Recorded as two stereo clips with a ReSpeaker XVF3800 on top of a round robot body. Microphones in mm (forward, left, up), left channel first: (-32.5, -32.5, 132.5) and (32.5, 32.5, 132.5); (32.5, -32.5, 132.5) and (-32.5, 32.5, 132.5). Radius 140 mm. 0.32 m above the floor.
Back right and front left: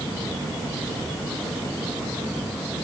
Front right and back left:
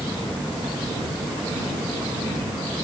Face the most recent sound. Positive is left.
No sound to turn to.